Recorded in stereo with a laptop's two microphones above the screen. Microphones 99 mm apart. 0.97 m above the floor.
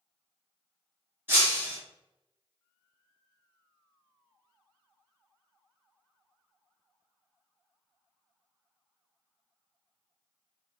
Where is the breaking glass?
20° right (ahead or behind), 1.1 m.